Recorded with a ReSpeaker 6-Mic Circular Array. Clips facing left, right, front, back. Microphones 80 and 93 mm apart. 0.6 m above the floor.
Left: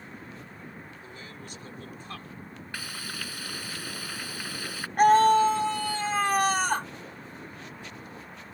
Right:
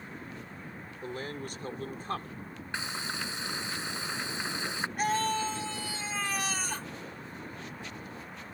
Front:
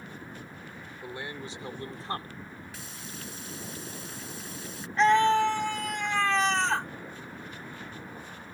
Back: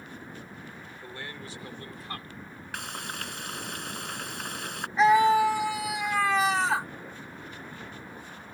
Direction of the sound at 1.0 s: 75° right.